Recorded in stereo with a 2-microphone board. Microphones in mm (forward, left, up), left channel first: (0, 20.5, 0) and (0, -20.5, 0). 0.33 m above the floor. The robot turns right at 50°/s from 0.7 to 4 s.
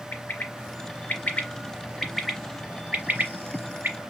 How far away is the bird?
About 0.8 m.